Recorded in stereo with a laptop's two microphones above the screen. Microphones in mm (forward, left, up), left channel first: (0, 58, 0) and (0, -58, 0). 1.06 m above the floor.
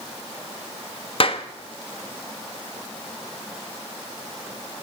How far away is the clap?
About 1.2 m.